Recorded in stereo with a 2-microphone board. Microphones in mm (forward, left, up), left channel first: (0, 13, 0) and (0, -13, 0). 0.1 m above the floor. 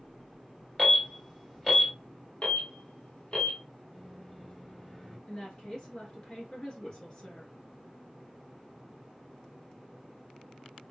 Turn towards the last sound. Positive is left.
turn(degrees=30)  # may be behind; listen again after turning